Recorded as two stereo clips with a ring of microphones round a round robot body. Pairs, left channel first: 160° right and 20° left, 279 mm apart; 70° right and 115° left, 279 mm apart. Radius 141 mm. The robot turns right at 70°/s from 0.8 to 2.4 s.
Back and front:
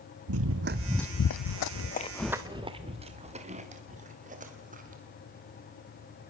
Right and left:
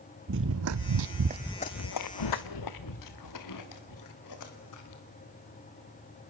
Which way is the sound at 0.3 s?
60° left.